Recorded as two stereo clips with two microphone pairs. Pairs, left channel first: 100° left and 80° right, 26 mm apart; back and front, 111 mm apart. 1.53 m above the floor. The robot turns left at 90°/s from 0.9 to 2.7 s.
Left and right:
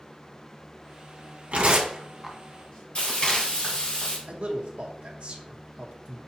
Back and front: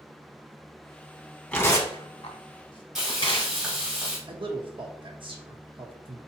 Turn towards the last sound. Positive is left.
turn(degrees=-40)